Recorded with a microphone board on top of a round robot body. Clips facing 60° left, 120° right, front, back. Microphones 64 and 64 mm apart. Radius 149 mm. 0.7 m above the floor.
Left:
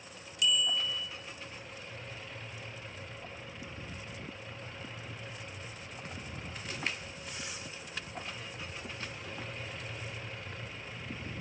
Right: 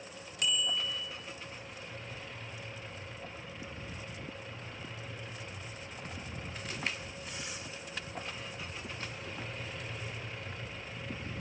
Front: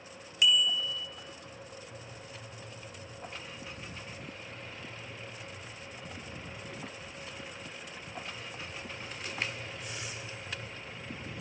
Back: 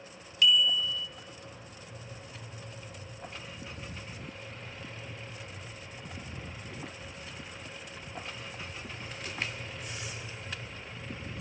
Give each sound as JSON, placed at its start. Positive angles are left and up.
{"t": 0.4, "sound": "a bicycle bell", "azimuth_deg": -75, "distance_m": 3.0}